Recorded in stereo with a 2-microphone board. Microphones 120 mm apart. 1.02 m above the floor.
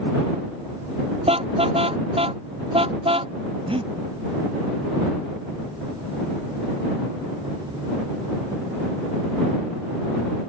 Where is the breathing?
55° right (ahead or behind).